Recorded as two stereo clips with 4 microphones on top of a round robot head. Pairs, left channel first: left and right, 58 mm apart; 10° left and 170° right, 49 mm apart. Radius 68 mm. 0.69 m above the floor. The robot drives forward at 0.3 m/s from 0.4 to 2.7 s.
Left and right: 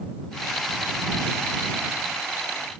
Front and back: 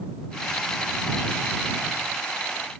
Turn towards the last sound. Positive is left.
No sound to turn to.